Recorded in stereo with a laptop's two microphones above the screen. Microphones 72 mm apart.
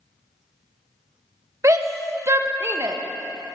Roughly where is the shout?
Right.